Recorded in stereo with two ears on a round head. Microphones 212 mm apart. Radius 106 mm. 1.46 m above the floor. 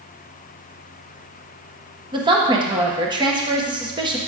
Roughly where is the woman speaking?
Centre.